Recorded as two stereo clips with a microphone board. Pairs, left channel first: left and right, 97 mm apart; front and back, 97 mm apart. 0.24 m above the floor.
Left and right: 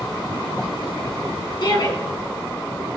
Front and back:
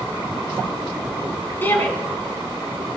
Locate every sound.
1.6 s a shout: 65° left, 3 m